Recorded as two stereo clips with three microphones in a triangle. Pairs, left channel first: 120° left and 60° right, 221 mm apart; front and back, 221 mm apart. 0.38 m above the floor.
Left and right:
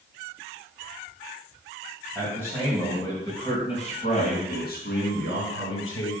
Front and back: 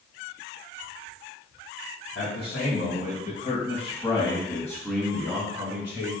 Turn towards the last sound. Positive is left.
turn(degrees=110)